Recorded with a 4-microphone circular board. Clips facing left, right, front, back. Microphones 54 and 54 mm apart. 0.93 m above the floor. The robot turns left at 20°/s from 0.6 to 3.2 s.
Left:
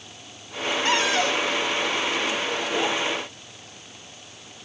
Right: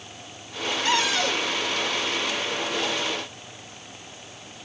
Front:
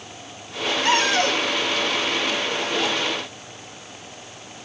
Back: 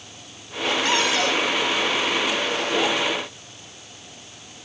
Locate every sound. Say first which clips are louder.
0.8 s a cupboard door: left 1 dB, front 3 dB; 40° left, 1.8 m; by 1.5 s 25° left, 1.8 m